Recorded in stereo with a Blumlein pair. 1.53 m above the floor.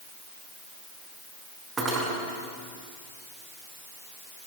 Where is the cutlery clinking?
25° right, 7.5 m.